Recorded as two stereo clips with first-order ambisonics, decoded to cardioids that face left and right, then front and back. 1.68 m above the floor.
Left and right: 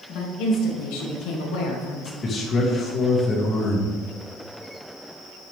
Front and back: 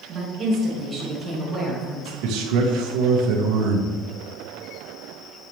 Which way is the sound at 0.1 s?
130° left.